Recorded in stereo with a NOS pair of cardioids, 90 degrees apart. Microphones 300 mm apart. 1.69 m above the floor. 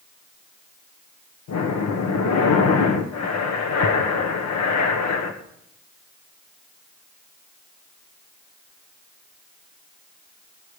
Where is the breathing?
60° left, 1.4 m.